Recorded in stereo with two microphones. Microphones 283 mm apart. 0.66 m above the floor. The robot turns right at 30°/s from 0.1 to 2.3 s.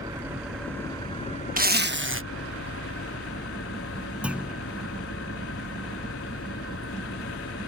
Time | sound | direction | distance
0.0 | an engine running | 15° right | ?
1.6 | a zipper | 30° right (ahead or behind) | ?
4.2 | a clunk | 5° right (ahead or behind) | ?